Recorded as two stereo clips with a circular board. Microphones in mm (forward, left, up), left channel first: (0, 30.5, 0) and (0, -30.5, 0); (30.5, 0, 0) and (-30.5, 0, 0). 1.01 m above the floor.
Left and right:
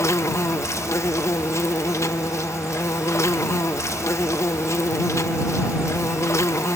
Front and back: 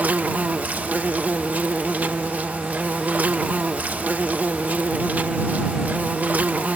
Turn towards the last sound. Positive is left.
turn(degrees=120)